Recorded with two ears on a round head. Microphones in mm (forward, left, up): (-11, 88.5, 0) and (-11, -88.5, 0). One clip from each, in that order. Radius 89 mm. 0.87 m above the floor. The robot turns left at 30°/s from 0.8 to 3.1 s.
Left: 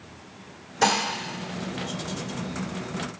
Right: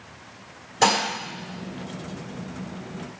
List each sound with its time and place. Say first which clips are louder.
0.8 s dishes clattering: right 2 dB; 5° right (ahead or behind), 1.8 m; by 1.0 s 15° right (ahead or behind), 1.8 m